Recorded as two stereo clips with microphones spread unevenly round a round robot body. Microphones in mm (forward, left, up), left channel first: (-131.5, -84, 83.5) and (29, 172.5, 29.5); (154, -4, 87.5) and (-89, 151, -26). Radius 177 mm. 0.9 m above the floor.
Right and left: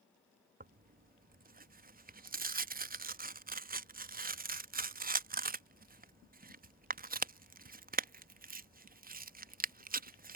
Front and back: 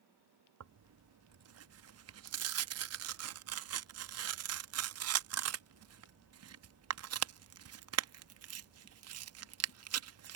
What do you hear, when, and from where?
0.6 s tearing paper: 120° left